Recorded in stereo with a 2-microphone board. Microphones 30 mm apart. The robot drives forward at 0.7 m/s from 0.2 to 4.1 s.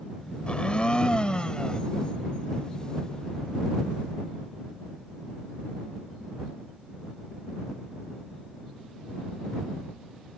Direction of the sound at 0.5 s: 35° left (ahead or behind).